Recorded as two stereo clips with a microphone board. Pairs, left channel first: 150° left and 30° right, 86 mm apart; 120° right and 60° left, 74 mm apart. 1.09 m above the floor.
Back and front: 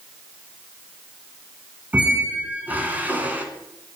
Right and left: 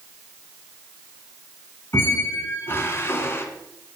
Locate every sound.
1.9 s a squeak: 90° right, 1.2 m